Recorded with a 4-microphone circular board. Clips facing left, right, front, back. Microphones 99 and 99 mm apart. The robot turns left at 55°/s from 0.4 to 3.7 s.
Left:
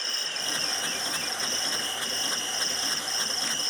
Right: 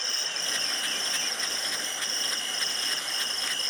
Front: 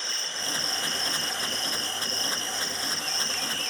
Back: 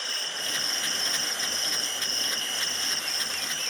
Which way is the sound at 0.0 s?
60° left.